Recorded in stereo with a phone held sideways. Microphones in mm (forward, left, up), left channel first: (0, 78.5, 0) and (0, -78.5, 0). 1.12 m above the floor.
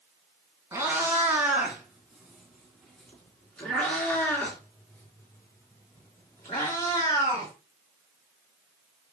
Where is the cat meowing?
20° right (ahead or behind), 3 m; by 7.5 s 25° left (ahead or behind), 5 m.